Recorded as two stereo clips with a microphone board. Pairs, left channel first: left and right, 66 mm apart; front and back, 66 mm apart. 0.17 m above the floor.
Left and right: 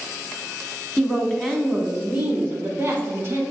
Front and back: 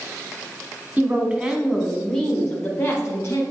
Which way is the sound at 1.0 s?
155° left.